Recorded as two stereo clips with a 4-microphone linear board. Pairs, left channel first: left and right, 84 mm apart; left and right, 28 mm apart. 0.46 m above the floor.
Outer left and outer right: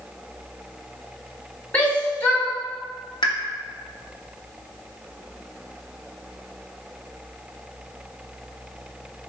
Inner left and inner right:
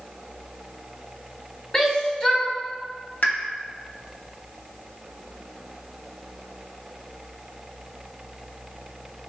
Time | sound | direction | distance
1.7 | a shout | 20° left (ahead or behind) | 0.9 m
3.2 | a pop | 55° left (ahead or behind) | 0.6 m